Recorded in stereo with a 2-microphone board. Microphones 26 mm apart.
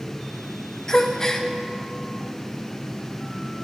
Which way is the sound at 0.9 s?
25° left (ahead or behind).